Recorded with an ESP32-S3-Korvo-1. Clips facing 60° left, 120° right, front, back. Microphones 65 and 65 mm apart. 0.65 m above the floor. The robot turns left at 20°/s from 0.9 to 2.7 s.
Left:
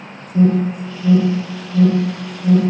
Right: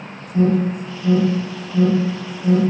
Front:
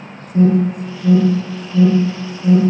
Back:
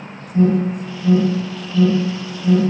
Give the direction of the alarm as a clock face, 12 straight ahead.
12 o'clock.